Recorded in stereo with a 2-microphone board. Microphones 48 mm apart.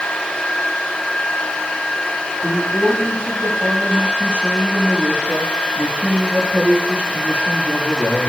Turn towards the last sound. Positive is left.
turn(degrees=-35)  # may be behind; listen again after turning